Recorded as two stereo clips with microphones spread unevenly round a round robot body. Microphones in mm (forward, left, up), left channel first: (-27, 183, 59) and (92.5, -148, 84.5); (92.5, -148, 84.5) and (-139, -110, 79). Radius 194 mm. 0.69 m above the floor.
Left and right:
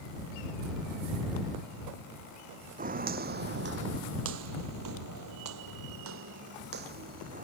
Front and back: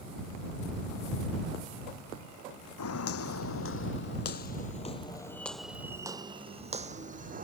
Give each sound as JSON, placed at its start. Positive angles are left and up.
{"t": 2.8, "sound": "footsteps", "azimuth_deg": -5}